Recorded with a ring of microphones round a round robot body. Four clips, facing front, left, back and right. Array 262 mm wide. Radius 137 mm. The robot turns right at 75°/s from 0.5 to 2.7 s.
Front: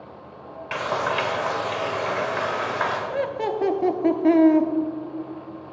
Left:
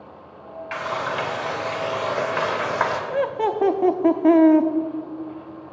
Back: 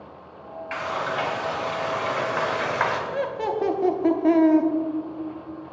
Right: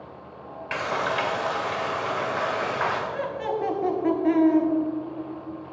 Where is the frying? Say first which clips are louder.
Even, front 3 dB; 40° right, 1.9 m; by 3.0 s 110° left, 1.9 m.